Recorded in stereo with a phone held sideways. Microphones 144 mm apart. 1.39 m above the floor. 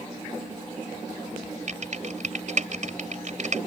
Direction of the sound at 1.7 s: 60° right (ahead or behind).